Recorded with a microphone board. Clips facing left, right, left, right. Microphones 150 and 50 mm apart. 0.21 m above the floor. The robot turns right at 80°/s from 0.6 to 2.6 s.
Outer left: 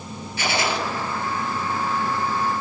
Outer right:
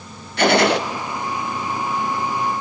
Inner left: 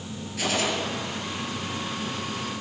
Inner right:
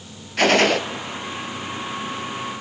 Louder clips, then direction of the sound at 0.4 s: Outer right 9 dB, inner right 10 dB; 65° right (ahead or behind).